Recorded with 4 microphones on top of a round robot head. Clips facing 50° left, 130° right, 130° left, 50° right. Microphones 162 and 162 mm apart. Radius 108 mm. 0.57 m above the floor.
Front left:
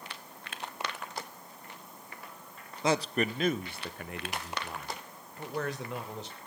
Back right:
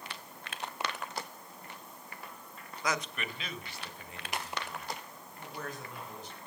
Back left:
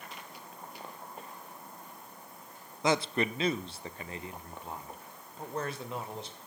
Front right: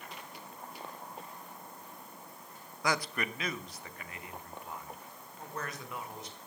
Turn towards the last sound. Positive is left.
turn(degrees=65)